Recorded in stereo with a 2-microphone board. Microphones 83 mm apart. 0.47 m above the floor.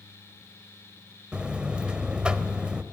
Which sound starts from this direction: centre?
A buzzer, at 1.3 s.